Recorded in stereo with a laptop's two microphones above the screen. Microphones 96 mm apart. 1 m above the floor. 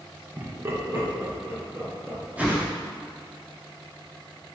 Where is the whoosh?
15° right (ahead or behind), 1.2 m.